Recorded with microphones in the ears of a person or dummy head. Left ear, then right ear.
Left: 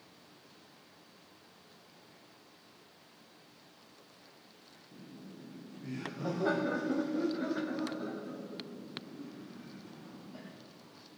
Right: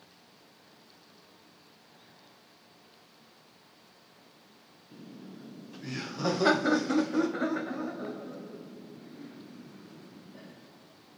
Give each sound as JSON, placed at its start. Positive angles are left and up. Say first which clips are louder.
{"t": 4.9, "sound": "laughter", "louder": "right 4 dB", "side_deg": -55, "distance_m": 1.4}